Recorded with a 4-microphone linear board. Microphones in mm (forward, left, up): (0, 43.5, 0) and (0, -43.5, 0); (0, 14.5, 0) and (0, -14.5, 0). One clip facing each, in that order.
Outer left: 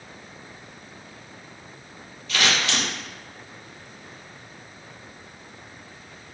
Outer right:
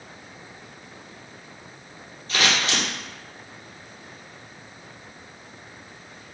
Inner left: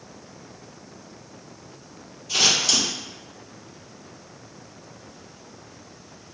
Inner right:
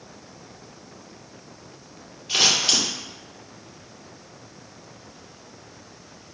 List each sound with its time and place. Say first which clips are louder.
2.3 s scissors: even, even; 35° right (ahead or behind), 0.9 m